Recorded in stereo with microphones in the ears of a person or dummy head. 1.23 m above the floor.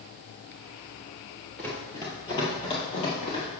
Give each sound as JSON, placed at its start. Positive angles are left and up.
{"t": 1.6, "sound": "running footsteps", "side_deg": 10, "distance_m": 1.5}